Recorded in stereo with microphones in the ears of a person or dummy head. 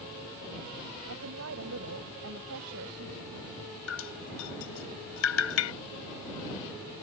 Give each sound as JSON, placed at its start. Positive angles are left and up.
{"t": 1.1, "sound": "a woman speaking", "side_deg": -85}
{"t": 3.9, "sound": "dripping", "side_deg": 80}